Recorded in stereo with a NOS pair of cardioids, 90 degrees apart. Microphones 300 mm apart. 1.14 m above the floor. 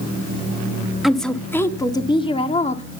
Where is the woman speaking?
Straight ahead, 1.9 m; by 2.8 s 25° left, 2.5 m.